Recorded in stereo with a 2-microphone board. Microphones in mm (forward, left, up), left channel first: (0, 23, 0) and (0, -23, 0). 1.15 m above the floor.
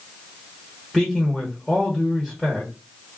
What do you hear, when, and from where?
0.9 s a man speaking: 5° left (ahead or behind), 1.1 m